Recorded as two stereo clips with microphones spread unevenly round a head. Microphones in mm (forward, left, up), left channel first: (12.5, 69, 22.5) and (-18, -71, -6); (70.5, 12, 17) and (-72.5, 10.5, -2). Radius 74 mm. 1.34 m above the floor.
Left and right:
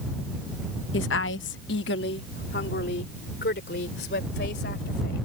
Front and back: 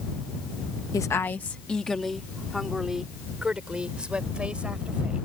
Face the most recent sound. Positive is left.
turn(degrees=100)